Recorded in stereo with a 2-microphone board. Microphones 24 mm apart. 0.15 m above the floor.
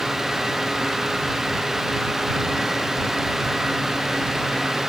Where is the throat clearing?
I don't hear throat clearing.